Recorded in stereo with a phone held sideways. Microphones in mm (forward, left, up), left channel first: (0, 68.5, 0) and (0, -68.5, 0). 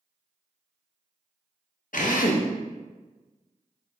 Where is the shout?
I don't hear a shout.